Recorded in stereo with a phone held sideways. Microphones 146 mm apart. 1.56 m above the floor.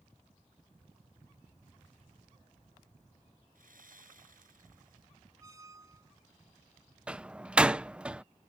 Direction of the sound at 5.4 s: 25° right (ahead or behind).